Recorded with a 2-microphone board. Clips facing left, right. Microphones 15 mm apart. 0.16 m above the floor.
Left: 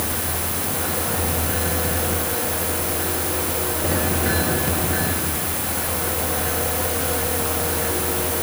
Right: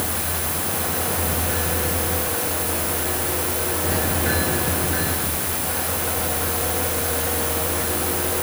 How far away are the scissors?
No scissors in this recording.